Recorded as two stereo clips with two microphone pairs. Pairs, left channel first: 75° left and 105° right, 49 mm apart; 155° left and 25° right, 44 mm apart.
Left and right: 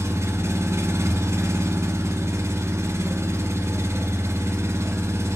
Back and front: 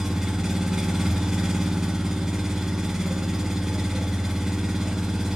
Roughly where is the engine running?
Right.